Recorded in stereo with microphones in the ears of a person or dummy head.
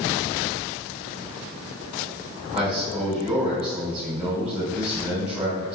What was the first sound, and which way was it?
A man speaking, 5° right (ahead or behind).